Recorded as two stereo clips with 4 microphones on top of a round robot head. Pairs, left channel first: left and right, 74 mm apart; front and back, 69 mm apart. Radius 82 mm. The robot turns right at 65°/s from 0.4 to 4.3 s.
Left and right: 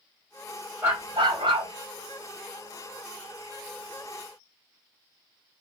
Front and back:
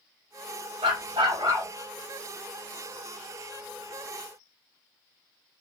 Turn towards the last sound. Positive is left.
turn(degrees=60)